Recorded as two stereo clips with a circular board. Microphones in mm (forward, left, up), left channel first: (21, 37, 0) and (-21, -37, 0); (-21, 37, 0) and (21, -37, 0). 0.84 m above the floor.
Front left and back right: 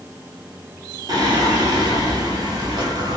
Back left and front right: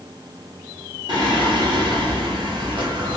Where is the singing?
85° right, 1.1 m.